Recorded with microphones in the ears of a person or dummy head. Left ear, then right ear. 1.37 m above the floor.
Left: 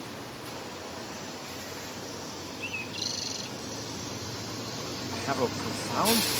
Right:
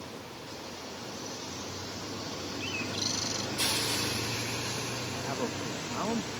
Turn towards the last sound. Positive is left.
turn(degrees=85)